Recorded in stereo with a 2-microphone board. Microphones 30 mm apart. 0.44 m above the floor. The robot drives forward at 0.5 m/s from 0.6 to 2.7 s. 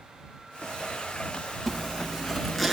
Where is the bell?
I don't hear a bell.